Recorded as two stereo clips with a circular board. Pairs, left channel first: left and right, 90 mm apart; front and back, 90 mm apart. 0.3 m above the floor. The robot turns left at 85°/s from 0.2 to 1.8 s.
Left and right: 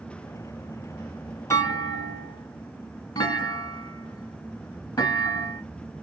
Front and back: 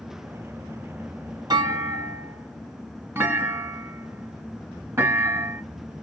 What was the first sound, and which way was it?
A clunk, 145° left.